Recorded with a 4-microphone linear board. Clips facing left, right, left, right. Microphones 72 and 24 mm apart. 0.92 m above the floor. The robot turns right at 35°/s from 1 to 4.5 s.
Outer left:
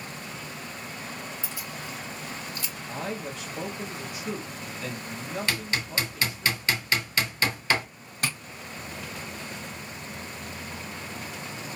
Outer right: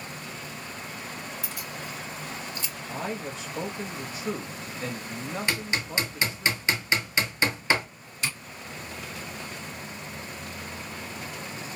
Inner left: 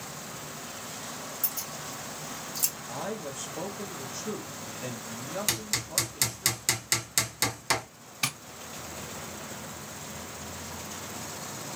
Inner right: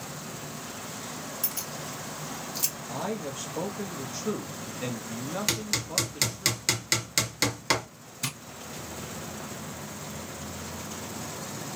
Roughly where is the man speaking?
Behind right.